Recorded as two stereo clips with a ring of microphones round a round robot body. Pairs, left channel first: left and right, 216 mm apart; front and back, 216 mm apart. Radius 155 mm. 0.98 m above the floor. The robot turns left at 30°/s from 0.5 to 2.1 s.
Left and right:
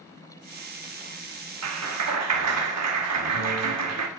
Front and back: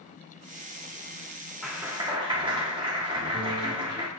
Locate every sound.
1.6 s a clap: 90° right, 1.4 m; by 4.1 s 105° right, 1.4 m